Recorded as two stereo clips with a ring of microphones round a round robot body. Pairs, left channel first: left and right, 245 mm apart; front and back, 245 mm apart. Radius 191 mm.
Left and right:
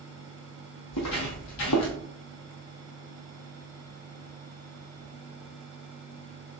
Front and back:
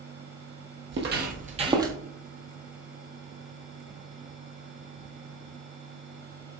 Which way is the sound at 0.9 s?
140° left.